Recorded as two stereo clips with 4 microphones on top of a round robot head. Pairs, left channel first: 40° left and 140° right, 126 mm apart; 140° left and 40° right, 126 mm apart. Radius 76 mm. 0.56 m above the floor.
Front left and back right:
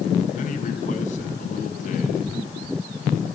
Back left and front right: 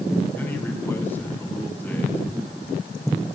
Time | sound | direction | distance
0.3 | a man speaking | 65° left | 6 m